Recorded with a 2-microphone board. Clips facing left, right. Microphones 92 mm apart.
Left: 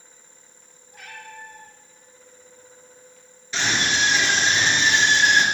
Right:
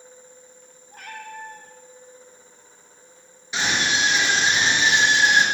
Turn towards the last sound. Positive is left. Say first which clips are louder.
# even
turn(degrees=-15)  # may be behind; listen again after turning